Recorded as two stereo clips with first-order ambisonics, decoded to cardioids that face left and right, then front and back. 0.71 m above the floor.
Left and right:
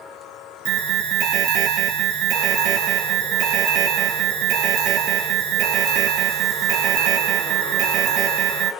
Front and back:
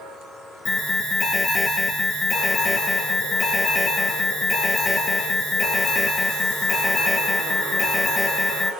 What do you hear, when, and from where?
0.7 s an alarm: 75° right, 0.9 m